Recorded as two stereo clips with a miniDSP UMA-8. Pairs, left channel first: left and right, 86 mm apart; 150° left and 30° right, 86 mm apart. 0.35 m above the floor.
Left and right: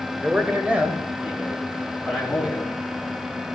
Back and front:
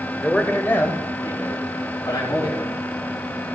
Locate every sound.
0.2 s a man speaking: 135° right, 0.8 m; by 2.7 s 170° right, 2.5 m